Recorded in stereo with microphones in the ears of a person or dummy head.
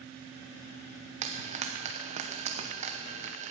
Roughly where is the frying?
Right.